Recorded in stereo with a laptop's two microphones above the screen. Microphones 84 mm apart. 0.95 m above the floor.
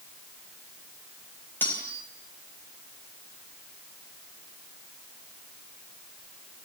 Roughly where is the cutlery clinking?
Left.